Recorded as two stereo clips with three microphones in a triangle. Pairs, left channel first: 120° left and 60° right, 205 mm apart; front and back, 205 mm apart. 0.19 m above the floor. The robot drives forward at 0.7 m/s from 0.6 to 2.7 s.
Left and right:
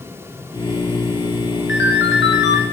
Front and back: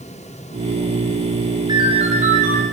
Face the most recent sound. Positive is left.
turn(degrees=145)